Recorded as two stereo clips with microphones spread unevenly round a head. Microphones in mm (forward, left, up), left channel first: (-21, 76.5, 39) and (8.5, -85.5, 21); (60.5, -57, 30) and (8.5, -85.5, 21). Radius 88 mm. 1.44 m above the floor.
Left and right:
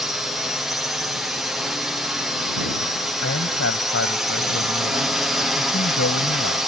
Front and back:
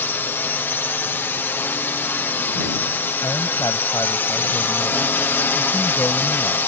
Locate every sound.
0.0 s a drone: straight ahead
3.2 s a man speaking: 90° left